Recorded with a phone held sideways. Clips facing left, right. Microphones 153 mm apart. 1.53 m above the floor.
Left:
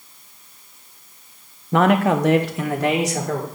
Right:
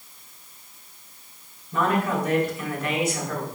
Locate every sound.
1.7 s a man speaking: 75° left (ahead or behind), 0.7 m; by 3.5 s 85° left, 1.8 m